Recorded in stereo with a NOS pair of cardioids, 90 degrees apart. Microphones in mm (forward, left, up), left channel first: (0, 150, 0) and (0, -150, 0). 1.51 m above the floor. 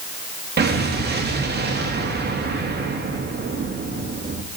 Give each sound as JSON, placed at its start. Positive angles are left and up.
{"t": 0.6, "sound": "an explosion", "azimuth_deg": -35, "distance_m": 2.0}